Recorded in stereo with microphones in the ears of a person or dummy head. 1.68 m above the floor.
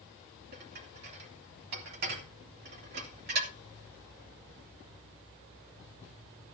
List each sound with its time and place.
0.5 s dishes clattering: 60° right (ahead or behind), 3 m